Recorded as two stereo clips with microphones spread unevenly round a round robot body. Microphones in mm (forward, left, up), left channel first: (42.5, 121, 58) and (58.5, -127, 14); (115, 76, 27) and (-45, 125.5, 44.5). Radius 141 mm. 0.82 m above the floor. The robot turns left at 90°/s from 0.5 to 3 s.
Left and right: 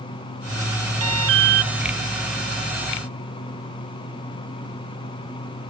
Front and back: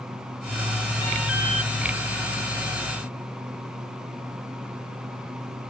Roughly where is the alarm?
Right.